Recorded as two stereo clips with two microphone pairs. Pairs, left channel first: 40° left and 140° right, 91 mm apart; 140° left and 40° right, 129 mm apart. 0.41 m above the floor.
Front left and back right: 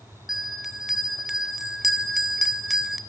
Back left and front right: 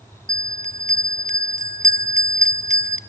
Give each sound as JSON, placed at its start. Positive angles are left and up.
{"t": 0.3, "sound": "a bell", "azimuth_deg": -55, "distance_m": 0.6}